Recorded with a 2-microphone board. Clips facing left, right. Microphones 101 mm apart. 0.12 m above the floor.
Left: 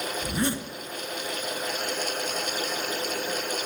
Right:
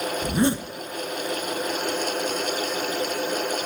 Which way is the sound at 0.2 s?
25° right (ahead or behind).